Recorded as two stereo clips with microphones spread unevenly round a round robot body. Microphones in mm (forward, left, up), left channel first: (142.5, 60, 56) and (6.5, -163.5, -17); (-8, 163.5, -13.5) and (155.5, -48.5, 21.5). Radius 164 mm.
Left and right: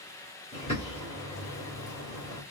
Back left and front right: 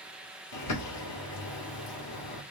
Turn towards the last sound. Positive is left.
turn(degrees=135)